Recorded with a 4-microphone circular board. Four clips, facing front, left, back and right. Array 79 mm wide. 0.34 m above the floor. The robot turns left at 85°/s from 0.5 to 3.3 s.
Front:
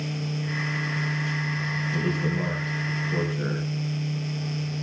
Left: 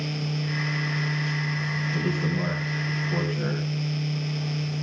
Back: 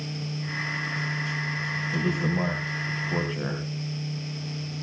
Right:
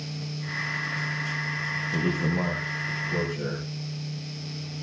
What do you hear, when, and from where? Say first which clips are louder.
1.9 s a man speaking: right 2 dB, back 1 dB; 95° right, 3 m; by 3.6 s 150° left, 3 m